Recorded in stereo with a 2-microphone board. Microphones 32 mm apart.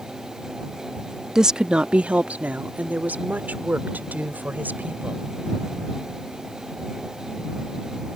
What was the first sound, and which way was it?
A woman speaking, 20° right (ahead or behind).